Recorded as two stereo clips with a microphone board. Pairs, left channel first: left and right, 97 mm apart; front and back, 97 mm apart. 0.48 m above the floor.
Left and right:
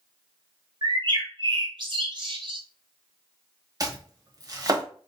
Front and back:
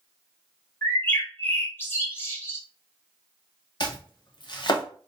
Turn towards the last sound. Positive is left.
turn(degrees=-40)